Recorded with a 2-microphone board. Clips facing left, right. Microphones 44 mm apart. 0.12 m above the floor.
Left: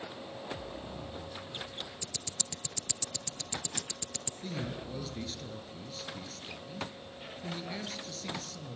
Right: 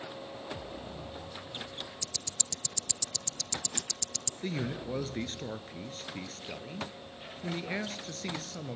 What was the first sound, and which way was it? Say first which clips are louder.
Ticking: even; 20° left (ahead or behind).